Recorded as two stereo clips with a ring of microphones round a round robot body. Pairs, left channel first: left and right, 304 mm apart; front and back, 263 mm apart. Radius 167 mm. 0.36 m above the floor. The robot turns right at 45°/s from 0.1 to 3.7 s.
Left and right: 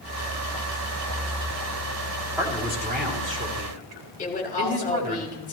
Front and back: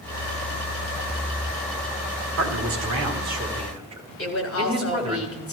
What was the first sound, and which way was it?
A man speaking, 175° right.